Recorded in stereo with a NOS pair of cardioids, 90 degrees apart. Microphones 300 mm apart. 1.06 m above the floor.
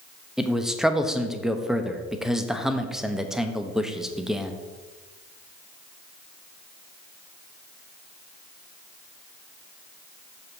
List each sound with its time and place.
0.4 s a man speaking: straight ahead, 1.1 m